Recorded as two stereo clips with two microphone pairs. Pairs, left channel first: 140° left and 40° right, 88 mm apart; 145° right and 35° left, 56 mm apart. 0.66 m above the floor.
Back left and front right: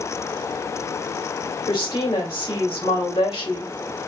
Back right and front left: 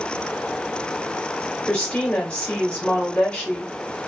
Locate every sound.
1.7 s a woman speaking: 150° left, 1.9 m